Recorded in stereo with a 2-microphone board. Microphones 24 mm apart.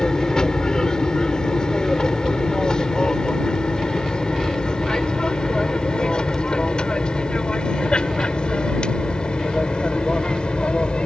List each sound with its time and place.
0.0 s an aircraft: 30° left (ahead or behind); by 11.1 s 45° left (ahead or behind)